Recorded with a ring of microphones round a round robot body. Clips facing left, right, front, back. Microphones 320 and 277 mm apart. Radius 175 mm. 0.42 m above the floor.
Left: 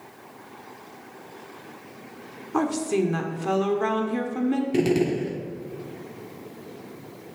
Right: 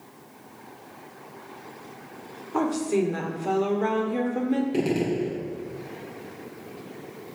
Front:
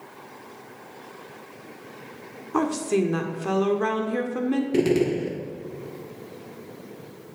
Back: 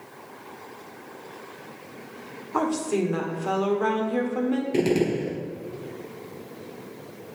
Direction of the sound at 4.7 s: 60° left.